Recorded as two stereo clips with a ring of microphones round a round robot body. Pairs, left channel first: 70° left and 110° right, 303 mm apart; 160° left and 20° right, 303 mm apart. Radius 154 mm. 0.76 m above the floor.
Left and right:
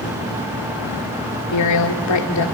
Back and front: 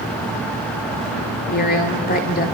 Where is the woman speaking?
95° left, 2 m.